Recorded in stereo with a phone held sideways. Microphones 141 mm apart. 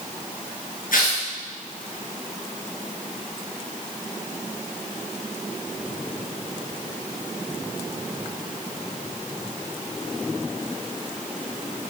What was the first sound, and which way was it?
Tearing paper, 75° left (ahead or behind).